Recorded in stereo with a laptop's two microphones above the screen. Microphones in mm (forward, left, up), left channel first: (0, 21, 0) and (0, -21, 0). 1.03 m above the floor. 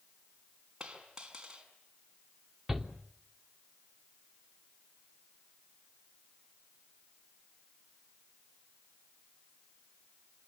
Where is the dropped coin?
20° right (ahead or behind), 5.5 m.